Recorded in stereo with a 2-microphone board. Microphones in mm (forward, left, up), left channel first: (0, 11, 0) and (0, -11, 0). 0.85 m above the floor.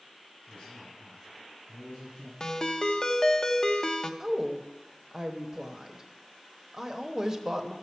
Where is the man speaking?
60° left (ahead or behind), 6 m.